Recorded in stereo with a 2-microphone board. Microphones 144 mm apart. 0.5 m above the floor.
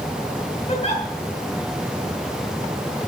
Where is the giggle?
45° left (ahead or behind), 6 m.